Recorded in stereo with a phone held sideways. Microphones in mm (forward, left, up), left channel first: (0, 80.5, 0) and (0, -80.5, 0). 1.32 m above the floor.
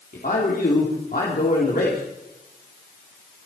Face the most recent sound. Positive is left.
turn(degrees=65)  # may be behind; listen again after turning